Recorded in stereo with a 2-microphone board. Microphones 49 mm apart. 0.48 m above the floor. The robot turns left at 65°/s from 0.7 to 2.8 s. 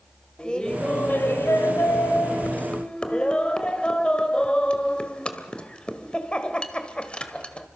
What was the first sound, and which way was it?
Laughter, 160° left.